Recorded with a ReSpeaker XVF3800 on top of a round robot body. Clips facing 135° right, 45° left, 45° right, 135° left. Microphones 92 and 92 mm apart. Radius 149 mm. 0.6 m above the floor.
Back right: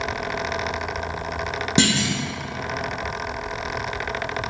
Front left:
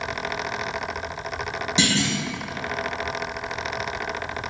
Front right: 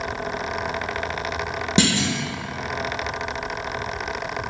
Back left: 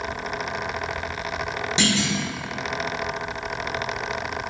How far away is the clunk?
About 0.6 m.